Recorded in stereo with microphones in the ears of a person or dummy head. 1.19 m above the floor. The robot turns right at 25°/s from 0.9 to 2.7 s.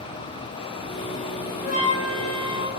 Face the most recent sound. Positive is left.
turn(degrees=50)  # may be behind; listen again after turning